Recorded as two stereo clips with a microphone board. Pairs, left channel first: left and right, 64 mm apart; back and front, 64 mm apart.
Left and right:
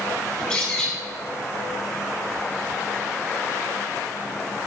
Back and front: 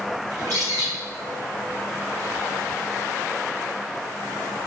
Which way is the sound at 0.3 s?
15° left.